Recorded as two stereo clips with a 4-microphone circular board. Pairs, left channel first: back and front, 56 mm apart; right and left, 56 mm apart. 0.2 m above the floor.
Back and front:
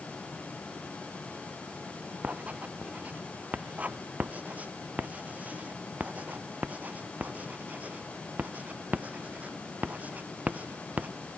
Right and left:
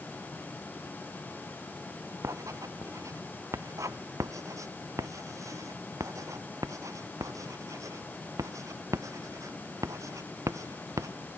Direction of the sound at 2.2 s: 65° left.